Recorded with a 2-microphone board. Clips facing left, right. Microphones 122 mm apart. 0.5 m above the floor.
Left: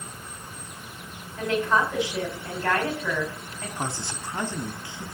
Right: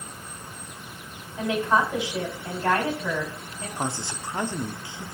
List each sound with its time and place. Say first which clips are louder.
1.4 s a woman speaking: right 1 dB; 20° right (ahead or behind), 3.5 m
3.8 s a man speaking: right 2 dB; 20° right (ahead or behind), 0.8 m